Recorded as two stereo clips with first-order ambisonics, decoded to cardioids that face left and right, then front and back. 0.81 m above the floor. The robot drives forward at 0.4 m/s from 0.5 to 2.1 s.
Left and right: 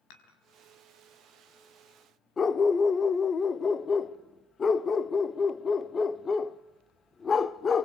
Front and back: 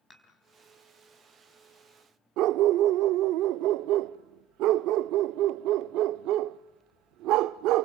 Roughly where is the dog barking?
Behind left.